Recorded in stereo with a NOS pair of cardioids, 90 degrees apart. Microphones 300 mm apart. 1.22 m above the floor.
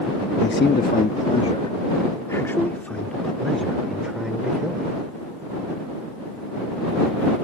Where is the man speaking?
35° left; by 4.9 s 5° right.